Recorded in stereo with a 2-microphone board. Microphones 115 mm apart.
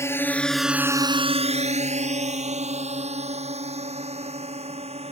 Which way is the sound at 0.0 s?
25° left (ahead or behind).